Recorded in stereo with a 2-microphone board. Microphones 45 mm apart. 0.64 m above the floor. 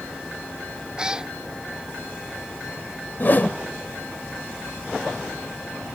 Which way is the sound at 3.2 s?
45° left (ahead or behind).